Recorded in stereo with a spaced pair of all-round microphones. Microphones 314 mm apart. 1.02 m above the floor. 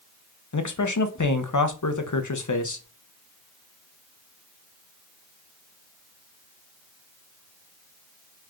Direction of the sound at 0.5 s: 70° left (ahead or behind).